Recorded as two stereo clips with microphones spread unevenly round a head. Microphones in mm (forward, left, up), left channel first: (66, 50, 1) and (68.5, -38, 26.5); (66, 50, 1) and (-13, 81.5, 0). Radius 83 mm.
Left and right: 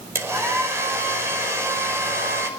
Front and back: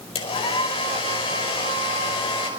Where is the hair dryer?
30° right, 5 m.